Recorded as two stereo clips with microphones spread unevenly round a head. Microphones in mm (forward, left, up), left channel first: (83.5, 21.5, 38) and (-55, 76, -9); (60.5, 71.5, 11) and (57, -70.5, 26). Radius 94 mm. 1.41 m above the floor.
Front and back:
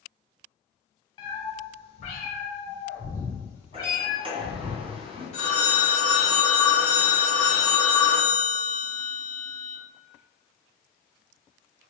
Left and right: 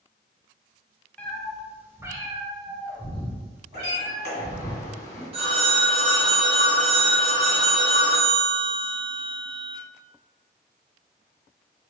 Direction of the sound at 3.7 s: 100° left.